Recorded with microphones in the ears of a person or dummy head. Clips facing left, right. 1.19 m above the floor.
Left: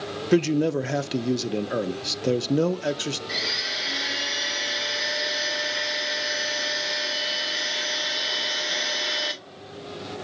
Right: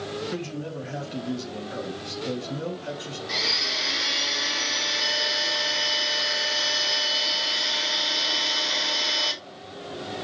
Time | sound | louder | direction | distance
0.3 | a man speaking | left 12 dB | 70° left (ahead or behind) | 0.6 m
3.3 | a blender | right 1 dB | 10° left (ahead or behind) | 1.0 m